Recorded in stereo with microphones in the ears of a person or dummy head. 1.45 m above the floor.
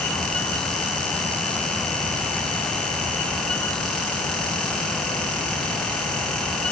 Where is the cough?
I don't hear a cough.